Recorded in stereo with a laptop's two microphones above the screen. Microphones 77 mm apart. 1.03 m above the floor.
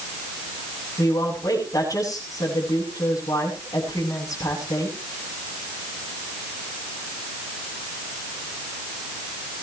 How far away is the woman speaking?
About 9 m.